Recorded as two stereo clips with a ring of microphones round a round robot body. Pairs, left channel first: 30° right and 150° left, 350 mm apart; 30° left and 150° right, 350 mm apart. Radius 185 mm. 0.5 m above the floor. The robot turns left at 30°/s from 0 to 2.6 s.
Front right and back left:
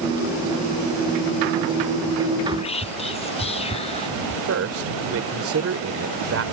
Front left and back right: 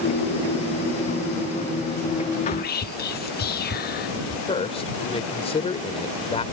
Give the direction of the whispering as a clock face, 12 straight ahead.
11 o'clock.